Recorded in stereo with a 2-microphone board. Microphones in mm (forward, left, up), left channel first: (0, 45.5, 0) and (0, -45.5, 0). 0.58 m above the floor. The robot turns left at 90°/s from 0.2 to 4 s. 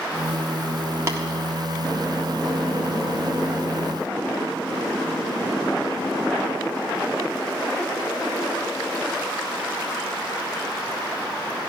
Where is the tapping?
30° right (ahead or behind), 1.5 m.